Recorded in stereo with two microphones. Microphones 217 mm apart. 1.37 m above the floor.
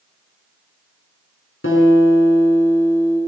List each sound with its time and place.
1.6 s a guitar: 80° left, 8 m